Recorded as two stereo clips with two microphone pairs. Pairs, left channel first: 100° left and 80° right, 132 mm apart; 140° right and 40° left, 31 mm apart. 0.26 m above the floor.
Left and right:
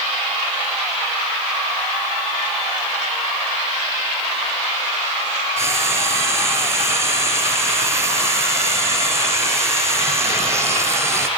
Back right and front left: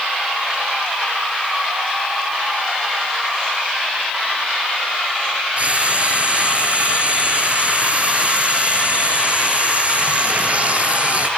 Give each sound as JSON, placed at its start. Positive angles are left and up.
{"t": 5.6, "sound": "frying", "azimuth_deg": -10, "distance_m": 1.6}